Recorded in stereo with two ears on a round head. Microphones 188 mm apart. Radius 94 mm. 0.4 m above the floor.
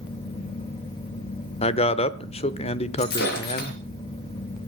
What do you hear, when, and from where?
1.6 s a man speaking: 30° left (ahead or behind), 0.8 m
3.0 s breaking glass: 55° left (ahead or behind), 4.5 m